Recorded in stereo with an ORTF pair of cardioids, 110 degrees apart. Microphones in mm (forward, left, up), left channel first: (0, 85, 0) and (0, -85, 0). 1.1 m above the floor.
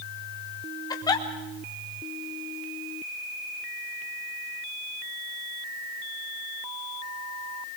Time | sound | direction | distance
0.9 | a giggle | 25° left | 3.5 m